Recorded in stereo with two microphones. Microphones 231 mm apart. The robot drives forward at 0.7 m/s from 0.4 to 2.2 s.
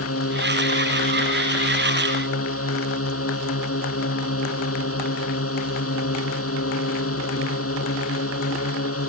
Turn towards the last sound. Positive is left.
turn(degrees=80)